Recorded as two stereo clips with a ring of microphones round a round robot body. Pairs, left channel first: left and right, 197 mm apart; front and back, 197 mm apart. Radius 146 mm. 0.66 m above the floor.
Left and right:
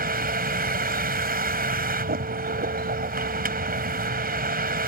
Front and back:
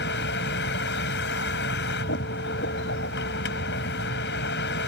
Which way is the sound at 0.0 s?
50° right.